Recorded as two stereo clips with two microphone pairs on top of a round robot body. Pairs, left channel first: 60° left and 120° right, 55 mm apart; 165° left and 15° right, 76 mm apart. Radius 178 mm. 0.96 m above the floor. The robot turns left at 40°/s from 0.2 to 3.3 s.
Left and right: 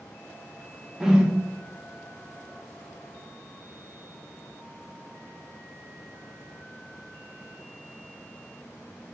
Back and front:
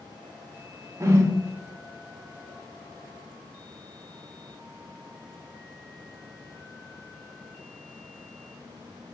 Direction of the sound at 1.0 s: 40° right.